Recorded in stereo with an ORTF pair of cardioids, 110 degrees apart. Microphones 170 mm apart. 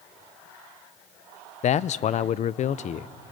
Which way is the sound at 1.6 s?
45° left.